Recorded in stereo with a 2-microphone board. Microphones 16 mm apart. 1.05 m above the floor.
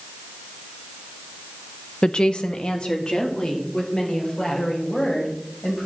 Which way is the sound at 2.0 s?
65° left (ahead or behind).